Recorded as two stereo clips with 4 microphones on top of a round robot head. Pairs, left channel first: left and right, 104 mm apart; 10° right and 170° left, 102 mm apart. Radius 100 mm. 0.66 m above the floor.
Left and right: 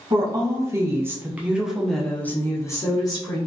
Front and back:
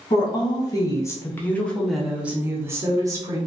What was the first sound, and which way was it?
A woman speaking, 45° right.